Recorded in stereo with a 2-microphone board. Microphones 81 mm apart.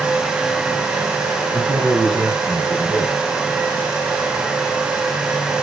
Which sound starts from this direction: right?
A man speaking, at 1.5 s.